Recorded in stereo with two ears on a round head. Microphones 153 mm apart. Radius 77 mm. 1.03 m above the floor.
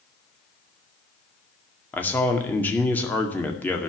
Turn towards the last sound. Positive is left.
turn(degrees=10)  # may be behind; listen again after turning